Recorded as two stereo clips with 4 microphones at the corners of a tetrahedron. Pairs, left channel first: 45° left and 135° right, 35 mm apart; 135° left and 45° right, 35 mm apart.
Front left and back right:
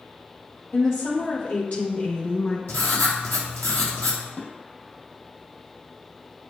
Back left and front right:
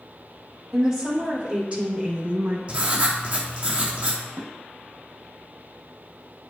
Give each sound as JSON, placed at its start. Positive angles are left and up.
{"t": 0.7, "sound": "a woman speaking", "azimuth_deg": 35, "distance_m": 3.5}
{"t": 2.7, "sound": "writing", "azimuth_deg": 10, "distance_m": 2.5}
{"t": 4.4, "sound": "dishes clattering", "azimuth_deg": -10, "distance_m": 2.5}